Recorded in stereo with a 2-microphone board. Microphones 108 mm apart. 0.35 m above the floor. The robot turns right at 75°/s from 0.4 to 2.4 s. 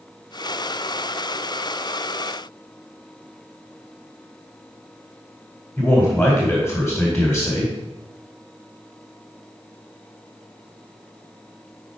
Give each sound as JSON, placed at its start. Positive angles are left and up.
{"t": 5.8, "sound": "a man speaking", "side_deg": 5, "distance_m": 2.0}